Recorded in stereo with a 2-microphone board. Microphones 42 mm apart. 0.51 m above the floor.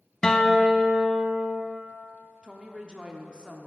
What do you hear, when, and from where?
0.2 s a guitar: 20° left (ahead or behind), 0.6 m
2.4 s a woman speaking: 25° right (ahead or behind), 0.7 m